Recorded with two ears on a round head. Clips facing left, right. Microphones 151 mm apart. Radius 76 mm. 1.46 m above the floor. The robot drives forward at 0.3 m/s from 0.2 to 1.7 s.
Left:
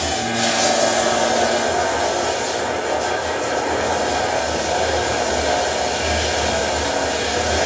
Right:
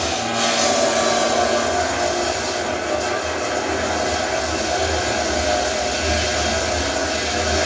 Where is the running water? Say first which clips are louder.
Left 1 dB; 40° right (ahead or behind), 2 m; by 7.7 s 50° right (ahead or behind), 1.8 m.